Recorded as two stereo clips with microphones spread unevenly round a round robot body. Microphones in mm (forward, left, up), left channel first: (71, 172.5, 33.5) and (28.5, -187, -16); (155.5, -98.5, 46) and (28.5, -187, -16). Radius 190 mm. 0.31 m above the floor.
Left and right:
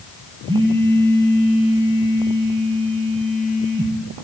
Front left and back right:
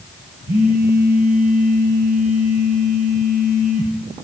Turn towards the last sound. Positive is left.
turn(degrees=-175)